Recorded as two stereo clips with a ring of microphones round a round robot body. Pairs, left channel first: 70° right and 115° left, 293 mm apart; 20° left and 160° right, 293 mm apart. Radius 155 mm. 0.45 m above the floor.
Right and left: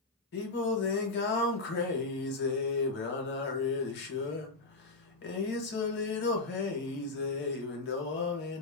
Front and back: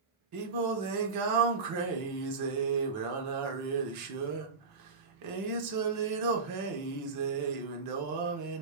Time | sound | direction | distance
0.3 | singing | 125° right | 0.5 m